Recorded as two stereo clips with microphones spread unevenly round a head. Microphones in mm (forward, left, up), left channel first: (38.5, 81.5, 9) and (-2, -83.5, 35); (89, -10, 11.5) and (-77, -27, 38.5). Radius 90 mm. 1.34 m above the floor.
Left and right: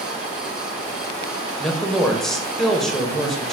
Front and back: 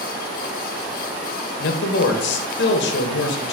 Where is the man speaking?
15° right, 0.5 m.